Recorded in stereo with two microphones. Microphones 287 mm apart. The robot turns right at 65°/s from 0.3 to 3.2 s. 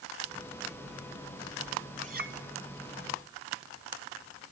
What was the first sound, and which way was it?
A clink, 20° right (ahead or behind).